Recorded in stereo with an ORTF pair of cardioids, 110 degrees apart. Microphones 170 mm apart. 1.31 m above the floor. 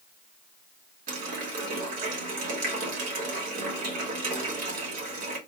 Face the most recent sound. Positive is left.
turn(degrees=-60)